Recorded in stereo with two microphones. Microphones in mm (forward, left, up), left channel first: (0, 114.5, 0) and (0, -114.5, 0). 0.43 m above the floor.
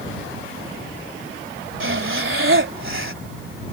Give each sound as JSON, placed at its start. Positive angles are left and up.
{"t": 1.8, "sound": "breathing", "side_deg": -60}